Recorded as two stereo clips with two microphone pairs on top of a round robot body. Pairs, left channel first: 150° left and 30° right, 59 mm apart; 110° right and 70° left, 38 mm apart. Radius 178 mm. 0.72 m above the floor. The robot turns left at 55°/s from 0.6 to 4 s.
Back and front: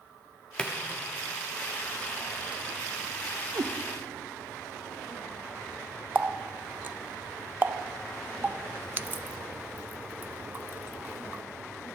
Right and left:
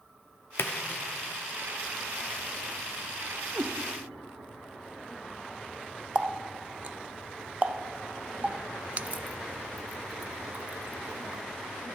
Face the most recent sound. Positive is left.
turn(degrees=25)